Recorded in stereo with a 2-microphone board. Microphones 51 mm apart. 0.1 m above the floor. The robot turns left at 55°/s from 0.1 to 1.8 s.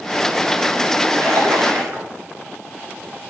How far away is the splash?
About 7 m.